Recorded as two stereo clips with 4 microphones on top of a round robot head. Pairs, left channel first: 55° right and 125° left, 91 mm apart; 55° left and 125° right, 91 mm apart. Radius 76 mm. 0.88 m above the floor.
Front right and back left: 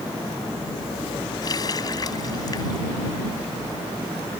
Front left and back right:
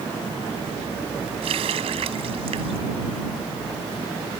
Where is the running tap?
105° right.